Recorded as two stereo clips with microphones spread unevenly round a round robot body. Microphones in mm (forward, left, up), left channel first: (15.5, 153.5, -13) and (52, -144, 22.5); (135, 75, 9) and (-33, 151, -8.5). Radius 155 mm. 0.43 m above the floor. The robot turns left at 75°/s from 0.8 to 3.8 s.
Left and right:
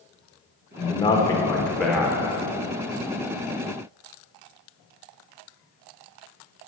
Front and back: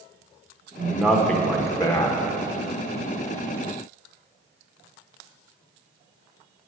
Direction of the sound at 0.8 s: 105° left.